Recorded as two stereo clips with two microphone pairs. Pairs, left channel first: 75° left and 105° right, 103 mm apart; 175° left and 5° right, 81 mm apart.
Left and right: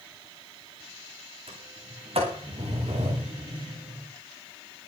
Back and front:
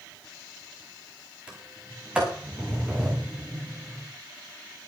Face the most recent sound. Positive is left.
turn(degrees=-80)